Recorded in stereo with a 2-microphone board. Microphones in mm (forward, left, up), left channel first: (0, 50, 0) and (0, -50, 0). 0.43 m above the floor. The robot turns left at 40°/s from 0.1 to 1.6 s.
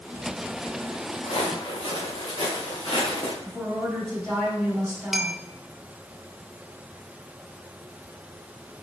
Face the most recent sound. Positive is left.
turn(degrees=0)  # may be behind; listen again after turning